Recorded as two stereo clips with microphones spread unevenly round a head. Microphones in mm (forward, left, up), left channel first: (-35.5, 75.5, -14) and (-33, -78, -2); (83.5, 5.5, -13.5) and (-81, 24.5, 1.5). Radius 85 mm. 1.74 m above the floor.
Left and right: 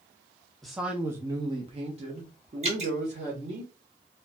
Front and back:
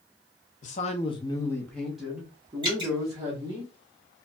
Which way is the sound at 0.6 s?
Straight ahead.